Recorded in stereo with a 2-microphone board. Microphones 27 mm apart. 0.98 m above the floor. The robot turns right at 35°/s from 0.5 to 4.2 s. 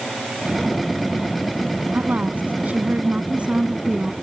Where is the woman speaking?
100° right; by 4.1 s 25° right.